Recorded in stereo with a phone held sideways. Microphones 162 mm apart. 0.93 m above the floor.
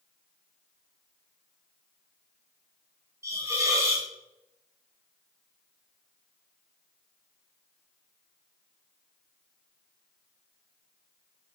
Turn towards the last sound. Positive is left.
turn(degrees=-20)  # may be behind; listen again after turning